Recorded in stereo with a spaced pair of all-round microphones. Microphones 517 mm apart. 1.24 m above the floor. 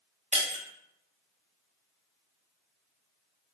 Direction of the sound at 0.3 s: 15° right (ahead or behind).